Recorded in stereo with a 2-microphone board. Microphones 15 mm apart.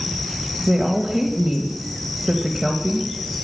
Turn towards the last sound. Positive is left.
turn(degrees=-45)  # may be behind; listen again after turning